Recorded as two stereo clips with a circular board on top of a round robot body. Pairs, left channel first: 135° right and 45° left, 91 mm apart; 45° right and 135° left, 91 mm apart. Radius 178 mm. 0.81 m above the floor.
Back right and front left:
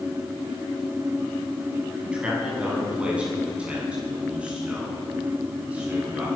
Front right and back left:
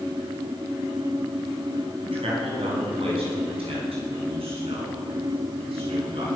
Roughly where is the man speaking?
Behind left.